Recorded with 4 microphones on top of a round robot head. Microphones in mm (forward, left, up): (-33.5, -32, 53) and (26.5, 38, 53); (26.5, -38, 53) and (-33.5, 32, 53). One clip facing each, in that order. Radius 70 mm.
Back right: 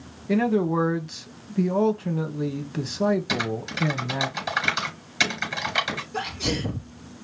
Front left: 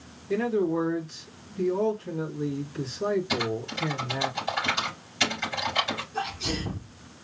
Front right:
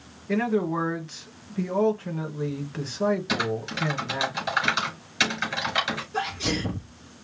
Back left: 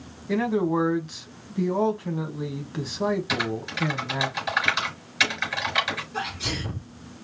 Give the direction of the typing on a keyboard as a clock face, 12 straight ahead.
4 o'clock.